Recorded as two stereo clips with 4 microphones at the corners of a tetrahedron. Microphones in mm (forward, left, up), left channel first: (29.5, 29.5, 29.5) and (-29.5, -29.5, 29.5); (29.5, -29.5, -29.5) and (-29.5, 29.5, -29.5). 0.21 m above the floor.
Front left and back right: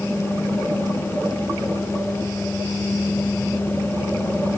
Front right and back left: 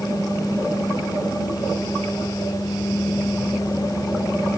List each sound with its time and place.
Only background noise.